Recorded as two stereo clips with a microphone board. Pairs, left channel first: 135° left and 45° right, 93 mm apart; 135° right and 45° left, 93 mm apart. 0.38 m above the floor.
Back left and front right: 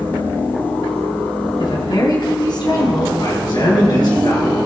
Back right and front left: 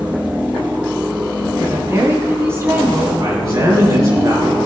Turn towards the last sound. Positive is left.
turn(degrees=100)